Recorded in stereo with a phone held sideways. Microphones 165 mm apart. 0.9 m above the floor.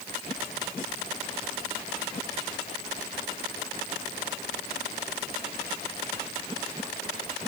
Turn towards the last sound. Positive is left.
No sound to turn to.